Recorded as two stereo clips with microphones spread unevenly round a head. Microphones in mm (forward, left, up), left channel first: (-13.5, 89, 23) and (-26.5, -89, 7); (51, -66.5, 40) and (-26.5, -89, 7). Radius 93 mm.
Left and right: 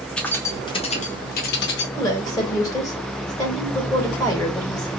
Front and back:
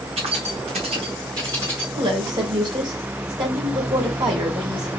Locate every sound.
0.2 s keys jangling: 170° left, 1.1 m; by 1.9 s 105° left, 1.2 m
2.0 s a woman speaking: 160° left, 2.5 m